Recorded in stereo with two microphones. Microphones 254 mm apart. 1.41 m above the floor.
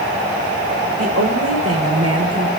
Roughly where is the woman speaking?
Right.